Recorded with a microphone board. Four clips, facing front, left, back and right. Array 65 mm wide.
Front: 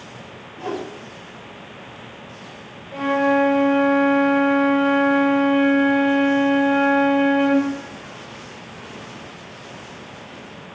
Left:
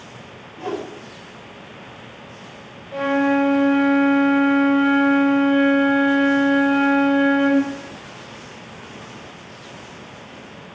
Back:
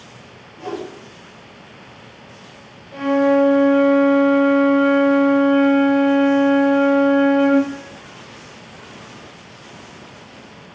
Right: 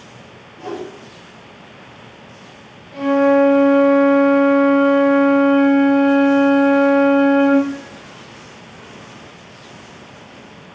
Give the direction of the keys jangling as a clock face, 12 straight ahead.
No keys jangling in this recording.